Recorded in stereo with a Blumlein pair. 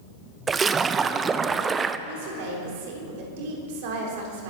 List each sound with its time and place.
0.5 s a splash: 20° right, 0.6 m
2.1 s a woman speaking: 50° right, 4 m